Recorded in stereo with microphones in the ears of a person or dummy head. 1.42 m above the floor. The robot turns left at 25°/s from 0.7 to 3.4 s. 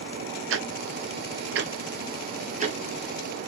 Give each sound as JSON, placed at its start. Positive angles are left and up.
{"t": 0.5, "sound": "ticking", "side_deg": -70, "distance_m": 0.6}